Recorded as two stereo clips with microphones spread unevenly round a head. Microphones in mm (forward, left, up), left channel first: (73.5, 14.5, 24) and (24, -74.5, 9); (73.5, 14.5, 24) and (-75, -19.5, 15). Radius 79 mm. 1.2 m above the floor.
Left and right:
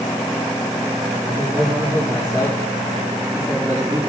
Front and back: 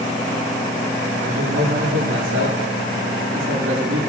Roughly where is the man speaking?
Behind.